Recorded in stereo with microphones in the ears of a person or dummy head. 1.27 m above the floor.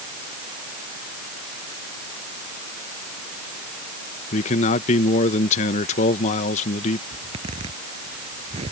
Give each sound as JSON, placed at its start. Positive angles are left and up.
{"t": 4.3, "sound": "a man speaking", "side_deg": 40}
{"t": 7.1, "sound": "a zipper", "side_deg": -35}